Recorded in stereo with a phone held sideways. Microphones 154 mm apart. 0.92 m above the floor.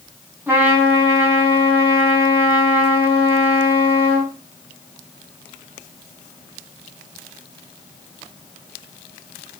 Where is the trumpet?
15° right (ahead or behind), 6.5 m.